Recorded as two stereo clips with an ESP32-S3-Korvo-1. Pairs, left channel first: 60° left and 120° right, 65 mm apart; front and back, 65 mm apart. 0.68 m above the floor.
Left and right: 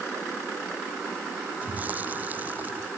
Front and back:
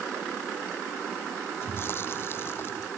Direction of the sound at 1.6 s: 55° right.